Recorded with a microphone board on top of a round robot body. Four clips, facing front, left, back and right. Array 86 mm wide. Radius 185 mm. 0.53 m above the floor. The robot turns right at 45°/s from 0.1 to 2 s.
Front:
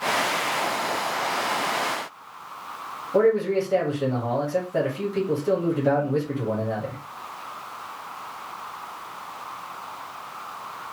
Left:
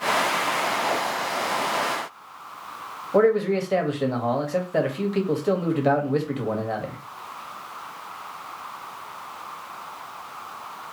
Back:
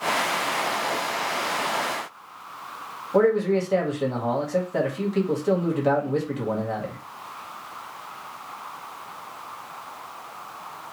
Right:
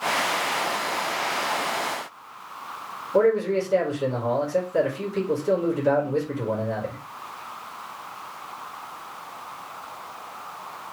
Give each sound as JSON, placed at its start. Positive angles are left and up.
{"t": 3.1, "sound": "a man speaking", "azimuth_deg": 105, "distance_m": 1.4}